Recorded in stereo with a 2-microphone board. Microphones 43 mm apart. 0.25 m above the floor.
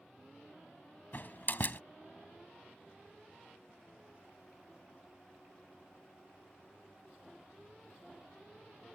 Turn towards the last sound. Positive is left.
turn(degrees=50)  # may be behind; listen again after turning